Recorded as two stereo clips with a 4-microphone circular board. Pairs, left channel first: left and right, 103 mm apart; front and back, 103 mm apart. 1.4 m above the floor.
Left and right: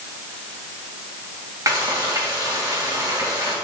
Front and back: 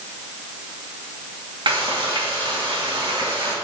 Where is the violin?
I don't hear a violin.